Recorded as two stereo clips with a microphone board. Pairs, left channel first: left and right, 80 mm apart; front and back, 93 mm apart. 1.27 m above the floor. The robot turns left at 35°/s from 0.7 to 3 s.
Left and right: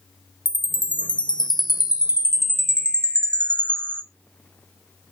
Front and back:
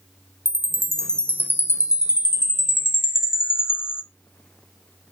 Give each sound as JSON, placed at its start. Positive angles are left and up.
{"t": 0.5, "sound": "a chime", "azimuth_deg": 95, "distance_m": 0.5}